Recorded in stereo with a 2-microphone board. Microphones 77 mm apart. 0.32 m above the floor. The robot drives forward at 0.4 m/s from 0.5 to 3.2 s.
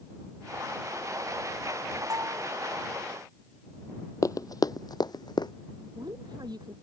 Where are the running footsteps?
45° left (ahead or behind); by 5.5 s 65° left (ahead or behind).